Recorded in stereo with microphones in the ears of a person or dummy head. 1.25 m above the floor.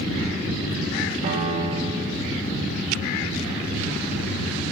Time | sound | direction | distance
1.2 | a piano | 25° right (ahead or behind) | 7 m